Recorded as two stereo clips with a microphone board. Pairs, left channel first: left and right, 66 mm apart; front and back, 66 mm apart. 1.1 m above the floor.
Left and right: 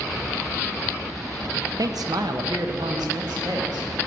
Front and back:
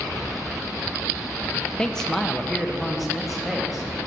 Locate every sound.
1.8 s a man speaking: 75° right, 0.6 m; by 3.9 s 95° right, 1.8 m